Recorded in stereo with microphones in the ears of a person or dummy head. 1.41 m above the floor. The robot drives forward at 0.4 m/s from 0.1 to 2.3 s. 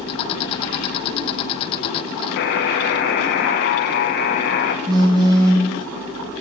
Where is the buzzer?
50° left (ahead or behind), 0.6 m.